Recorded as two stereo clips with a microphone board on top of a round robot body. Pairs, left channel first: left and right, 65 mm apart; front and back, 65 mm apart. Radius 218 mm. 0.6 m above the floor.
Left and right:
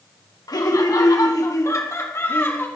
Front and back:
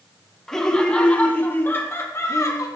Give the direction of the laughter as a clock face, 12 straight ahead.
9 o'clock.